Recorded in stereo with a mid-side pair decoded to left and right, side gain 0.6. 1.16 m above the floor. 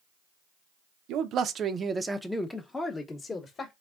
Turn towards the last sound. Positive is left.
turn(degrees=30)